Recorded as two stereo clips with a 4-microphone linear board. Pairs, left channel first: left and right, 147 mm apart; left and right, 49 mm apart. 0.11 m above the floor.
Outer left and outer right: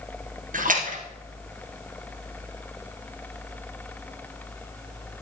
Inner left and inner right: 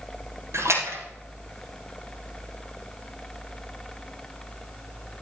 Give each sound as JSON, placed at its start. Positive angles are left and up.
{"t": 0.5, "sound": "a splash", "side_deg": -65, "distance_m": 3.0}